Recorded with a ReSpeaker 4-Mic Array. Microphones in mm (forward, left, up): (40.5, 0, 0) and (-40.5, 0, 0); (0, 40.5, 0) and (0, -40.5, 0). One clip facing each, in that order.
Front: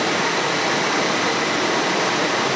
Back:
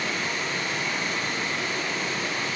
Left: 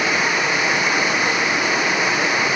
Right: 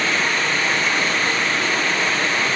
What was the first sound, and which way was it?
Running water, 15° left.